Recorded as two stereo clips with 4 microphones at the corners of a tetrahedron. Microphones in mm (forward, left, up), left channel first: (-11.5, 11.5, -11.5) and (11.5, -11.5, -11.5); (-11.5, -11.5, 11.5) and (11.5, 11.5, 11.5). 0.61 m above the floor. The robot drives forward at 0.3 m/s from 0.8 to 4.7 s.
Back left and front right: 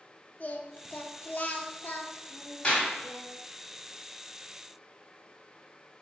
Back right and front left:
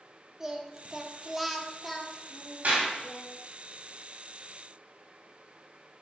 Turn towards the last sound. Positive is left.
turn(degrees=85)